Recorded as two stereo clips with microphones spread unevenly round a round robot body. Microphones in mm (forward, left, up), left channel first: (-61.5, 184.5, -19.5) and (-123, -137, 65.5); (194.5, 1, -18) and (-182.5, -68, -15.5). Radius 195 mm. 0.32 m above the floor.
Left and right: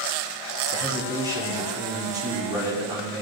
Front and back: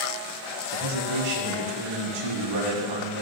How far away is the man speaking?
About 2.5 m.